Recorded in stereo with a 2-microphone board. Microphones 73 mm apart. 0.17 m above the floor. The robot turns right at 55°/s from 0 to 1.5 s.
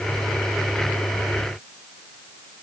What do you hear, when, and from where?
Only background noise.